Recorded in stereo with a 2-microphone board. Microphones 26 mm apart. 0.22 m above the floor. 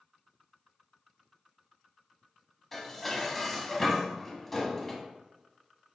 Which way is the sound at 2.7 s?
10° left (ahead or behind).